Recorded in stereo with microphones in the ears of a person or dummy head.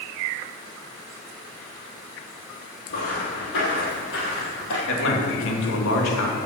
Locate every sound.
2.9 s footsteps: 60° left (ahead or behind), 3.5 m; by 4.8 s 65° left (ahead or behind), 3 m
4.9 s a man speaking: 80° left, 2 m